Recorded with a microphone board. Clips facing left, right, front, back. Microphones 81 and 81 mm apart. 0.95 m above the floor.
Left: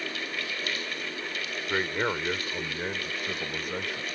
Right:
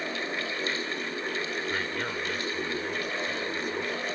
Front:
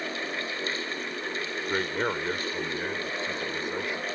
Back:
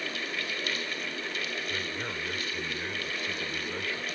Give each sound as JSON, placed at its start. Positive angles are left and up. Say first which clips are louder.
{"t": 1.7, "sound": "a man speaking", "louder": "left 3 dB, front 7 dB", "azimuth_deg": 30}